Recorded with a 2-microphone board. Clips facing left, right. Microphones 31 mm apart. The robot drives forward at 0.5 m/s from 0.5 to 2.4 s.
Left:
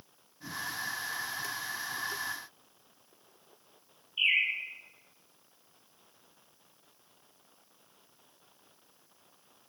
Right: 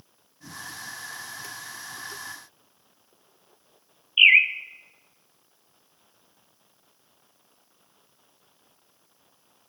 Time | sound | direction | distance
4.2 | a bird | 80° right | 0.7 m